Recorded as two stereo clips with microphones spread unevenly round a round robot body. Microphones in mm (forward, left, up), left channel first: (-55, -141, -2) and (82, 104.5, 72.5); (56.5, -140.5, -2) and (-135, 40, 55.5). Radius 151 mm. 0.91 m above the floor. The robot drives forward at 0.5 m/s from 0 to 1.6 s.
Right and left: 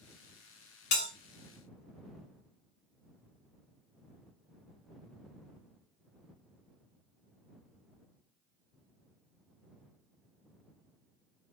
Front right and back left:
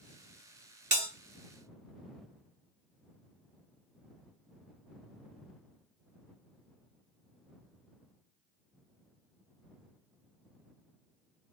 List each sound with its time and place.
0.9 s a bell: 175° right, 1.1 m